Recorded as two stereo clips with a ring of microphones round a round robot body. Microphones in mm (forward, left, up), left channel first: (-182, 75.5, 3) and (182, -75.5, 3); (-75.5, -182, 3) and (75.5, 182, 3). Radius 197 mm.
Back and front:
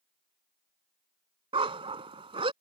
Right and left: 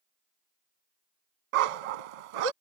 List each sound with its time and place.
1.5 s a dog barking: 55° left